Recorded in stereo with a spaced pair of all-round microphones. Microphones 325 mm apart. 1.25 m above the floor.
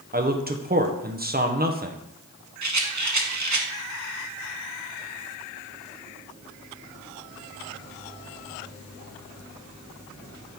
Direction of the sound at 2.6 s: 60° right (ahead or behind).